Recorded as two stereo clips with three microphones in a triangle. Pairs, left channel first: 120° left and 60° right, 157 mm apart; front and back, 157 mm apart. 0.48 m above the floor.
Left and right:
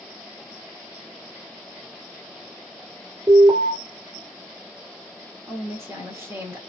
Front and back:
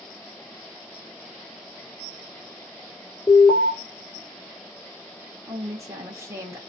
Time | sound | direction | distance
3.3 | an alarm | 25° right | 1.7 m
5.5 | a woman speaking | 120° right | 1.2 m